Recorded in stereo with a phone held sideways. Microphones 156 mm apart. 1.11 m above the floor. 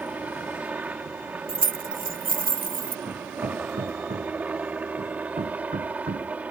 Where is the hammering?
65° right (ahead or behind).